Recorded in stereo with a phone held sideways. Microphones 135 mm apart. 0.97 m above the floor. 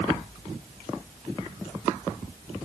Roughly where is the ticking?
I don't hear ticking.